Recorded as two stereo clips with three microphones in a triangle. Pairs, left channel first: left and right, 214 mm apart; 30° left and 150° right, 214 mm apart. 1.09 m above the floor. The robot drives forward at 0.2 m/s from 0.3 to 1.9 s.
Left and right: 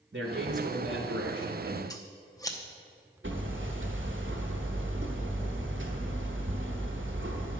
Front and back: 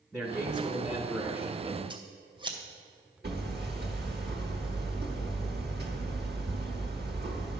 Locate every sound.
0.1 s a man speaking: 60° right, 1.2 m; by 1.8 s 75° right, 1.1 m
1.9 s scissors: 155° left, 0.9 m
3.2 s hammering: 110° right, 1.1 m